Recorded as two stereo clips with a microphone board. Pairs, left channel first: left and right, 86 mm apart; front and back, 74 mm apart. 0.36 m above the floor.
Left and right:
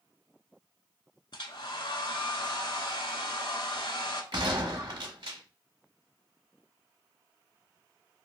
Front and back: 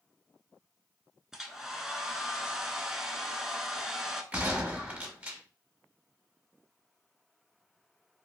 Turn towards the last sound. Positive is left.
turn(degrees=-110)